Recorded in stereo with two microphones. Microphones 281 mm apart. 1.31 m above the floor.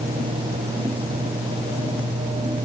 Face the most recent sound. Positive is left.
No sound to turn to.